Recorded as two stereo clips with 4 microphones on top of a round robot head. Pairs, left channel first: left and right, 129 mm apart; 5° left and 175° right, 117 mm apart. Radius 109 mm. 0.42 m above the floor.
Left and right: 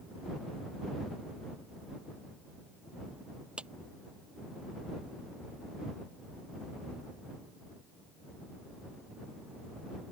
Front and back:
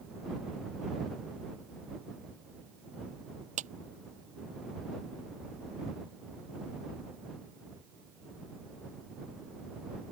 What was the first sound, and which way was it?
A clap, 175° right.